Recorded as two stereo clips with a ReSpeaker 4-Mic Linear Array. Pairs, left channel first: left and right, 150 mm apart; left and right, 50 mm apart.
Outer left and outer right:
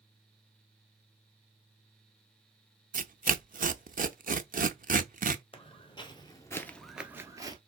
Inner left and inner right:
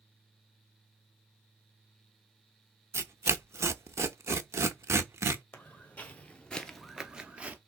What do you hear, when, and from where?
2.9 s tearing paper: 65° right (ahead or behind), 0.5 m
5.5 s footsteps: 40° left (ahead or behind), 1.3 m; by 7.6 s 30° right (ahead or behind), 0.9 m